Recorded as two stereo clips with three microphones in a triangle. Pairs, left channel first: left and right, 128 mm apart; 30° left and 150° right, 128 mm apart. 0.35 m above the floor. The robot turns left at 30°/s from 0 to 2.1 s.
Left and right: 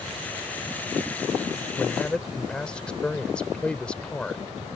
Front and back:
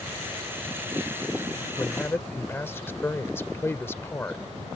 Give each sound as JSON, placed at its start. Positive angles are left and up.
{"t": 1.8, "sound": "a man speaking", "azimuth_deg": 35}